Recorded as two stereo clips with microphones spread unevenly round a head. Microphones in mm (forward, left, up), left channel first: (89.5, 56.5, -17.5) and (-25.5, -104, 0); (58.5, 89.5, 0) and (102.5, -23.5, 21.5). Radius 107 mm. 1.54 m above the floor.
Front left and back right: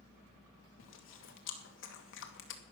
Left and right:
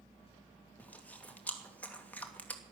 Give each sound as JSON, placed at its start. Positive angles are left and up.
{"t": 0.8, "sound": "chewing", "azimuth_deg": 30, "distance_m": 2.5}